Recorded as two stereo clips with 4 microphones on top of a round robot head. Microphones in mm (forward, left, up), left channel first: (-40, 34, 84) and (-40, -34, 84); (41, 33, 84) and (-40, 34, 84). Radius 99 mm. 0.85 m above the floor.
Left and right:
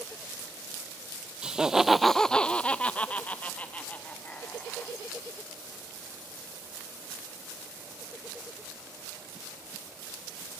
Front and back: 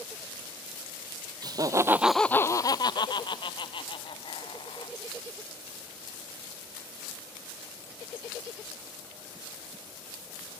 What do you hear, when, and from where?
1.4 s laughter: 165° right, 0.9 m; by 5.0 s 20° left, 2.5 m